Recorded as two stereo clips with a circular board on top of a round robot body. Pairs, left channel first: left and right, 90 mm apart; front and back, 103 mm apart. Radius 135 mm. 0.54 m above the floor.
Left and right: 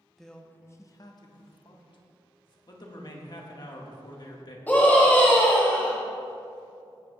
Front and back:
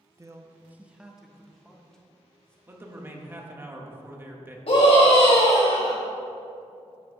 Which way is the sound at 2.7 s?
115° left.